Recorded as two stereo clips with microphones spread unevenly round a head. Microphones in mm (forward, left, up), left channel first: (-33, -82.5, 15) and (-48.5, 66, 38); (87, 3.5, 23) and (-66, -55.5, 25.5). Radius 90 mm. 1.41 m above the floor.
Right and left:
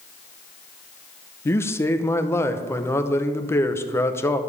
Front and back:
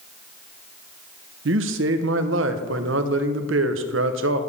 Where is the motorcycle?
No motorcycle in this recording.